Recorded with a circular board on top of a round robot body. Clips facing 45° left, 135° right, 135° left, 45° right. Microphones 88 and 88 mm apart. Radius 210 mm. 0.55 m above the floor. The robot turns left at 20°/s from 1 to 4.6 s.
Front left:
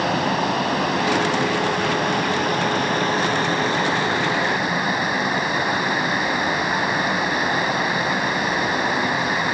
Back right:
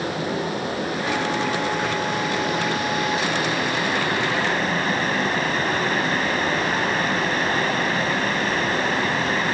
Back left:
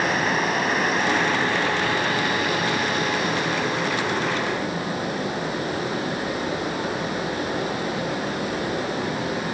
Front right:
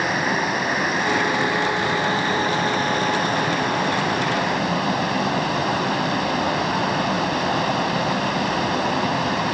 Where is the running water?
40° left, 4.5 m; by 9.6 s 35° right, 4.5 m.